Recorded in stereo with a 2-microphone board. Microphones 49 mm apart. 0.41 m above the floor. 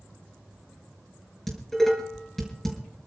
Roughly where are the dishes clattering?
Centre.